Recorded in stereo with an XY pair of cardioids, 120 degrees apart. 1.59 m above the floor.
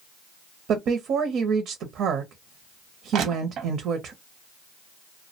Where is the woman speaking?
65° right, 0.6 m.